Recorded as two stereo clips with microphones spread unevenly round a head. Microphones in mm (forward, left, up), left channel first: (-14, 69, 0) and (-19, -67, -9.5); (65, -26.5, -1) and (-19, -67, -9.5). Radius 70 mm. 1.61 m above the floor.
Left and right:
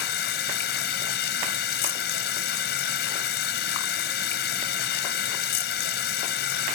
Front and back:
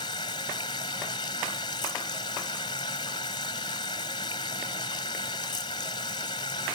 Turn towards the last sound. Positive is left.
turn(degrees=85)